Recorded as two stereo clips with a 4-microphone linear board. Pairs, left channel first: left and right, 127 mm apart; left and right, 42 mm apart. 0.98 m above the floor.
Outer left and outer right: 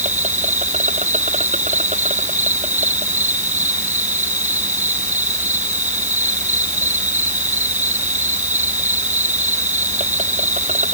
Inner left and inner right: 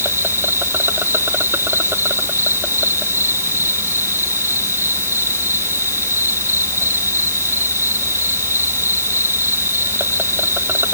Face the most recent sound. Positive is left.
turn(degrees=-90)